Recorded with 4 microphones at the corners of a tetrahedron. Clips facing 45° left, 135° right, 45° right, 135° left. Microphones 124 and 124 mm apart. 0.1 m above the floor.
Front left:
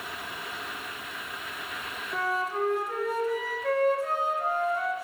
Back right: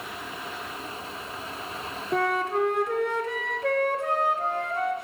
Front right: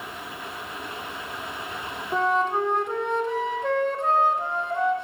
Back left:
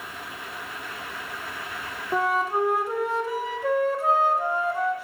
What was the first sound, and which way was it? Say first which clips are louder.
A flute: back right 5 dB, front right 1 dB; 140° right.